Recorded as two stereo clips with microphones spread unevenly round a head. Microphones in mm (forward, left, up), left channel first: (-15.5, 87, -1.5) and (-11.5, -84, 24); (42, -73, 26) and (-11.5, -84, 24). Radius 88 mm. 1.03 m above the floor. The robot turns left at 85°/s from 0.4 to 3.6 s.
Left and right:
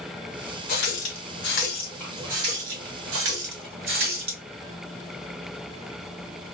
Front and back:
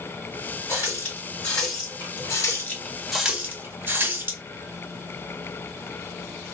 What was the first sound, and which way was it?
A running tap, 125° left.